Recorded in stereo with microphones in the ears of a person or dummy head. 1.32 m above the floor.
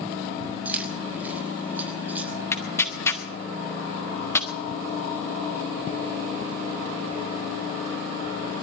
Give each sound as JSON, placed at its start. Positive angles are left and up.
{"t": 0.7, "sound": "keys jangling", "side_deg": 0, "distance_m": 6.0}
{"t": 2.5, "sound": "tearing paper", "side_deg": 10, "distance_m": 2.0}